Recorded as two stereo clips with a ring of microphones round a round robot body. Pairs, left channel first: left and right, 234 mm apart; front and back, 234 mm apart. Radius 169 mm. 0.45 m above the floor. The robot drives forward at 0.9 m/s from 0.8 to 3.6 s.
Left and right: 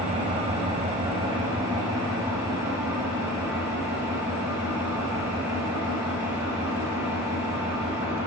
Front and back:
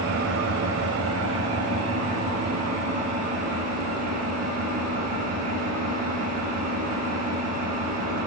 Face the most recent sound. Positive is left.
turn(degrees=-170)